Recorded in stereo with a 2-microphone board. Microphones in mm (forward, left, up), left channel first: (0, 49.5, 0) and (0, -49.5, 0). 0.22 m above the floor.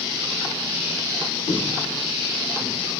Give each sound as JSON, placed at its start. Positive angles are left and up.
{"t": 1.5, "sound": "footsteps", "side_deg": 70, "distance_m": 1.6}